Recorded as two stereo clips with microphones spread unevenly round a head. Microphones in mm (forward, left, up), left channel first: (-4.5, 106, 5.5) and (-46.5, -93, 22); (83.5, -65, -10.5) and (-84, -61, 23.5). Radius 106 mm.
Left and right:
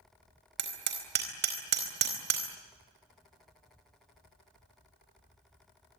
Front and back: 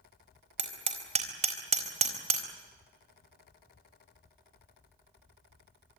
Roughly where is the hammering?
Behind right.